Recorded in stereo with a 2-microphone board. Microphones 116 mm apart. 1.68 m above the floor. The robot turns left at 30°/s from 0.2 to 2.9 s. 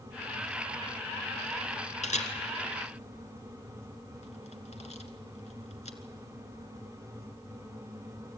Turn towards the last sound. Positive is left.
turn(degrees=70)  # may be behind; listen again after turning